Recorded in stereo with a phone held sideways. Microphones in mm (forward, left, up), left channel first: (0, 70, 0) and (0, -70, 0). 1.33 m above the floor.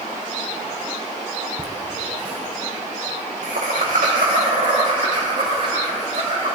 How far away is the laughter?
About 0.8 m.